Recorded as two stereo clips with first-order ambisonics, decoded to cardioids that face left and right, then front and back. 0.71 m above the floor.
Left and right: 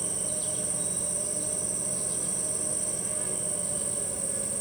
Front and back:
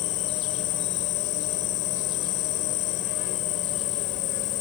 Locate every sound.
0.0 s an insect: 10° right